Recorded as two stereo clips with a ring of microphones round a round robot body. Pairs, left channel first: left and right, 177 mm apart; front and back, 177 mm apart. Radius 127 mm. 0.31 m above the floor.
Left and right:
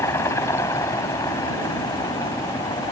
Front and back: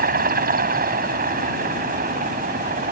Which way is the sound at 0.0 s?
165° left.